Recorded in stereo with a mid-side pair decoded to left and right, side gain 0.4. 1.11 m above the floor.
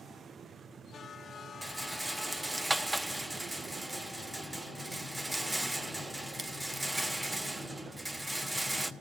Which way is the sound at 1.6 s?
10° right.